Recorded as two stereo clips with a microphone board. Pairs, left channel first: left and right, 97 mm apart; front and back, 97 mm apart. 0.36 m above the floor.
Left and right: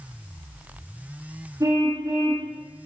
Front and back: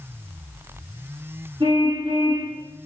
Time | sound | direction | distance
1.6 | a car horn | 145° right | 8.5 m